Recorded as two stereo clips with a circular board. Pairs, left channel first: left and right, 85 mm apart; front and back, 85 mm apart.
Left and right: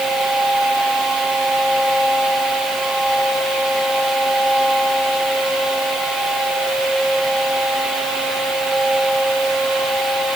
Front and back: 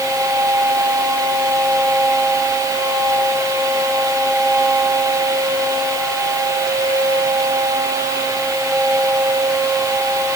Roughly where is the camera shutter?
No camera shutter in this recording.